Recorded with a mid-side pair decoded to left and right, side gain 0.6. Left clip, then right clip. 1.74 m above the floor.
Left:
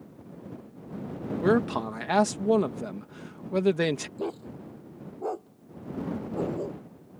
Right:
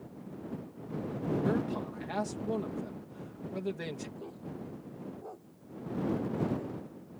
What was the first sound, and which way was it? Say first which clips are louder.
A man speaking: left 13 dB; 60° left.